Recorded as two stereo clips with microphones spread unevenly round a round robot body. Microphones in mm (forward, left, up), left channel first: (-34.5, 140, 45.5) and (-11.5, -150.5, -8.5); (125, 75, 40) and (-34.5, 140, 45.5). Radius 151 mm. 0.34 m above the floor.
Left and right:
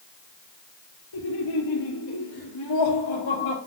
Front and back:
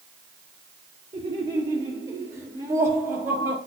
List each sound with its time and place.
1.1 s laughter: 95° left, 6 m; by 3.6 s 75° left, 6 m